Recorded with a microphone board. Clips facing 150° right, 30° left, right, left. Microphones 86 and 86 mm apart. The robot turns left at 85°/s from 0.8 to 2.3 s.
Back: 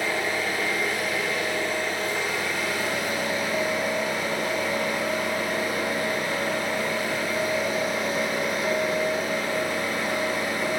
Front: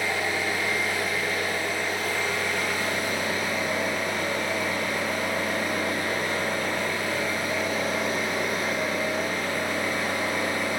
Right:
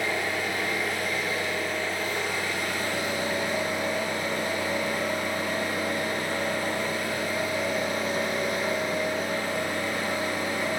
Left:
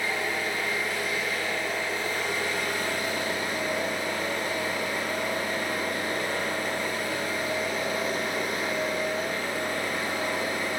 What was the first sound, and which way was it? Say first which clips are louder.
An engine running: back 1 dB, right 1 dB; 105° right.